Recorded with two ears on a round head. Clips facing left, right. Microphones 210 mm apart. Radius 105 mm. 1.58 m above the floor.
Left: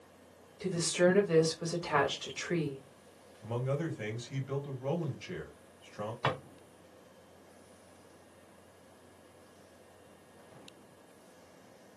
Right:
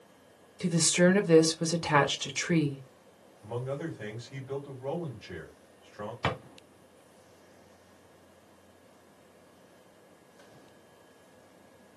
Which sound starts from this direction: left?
A man speaking, at 3.4 s.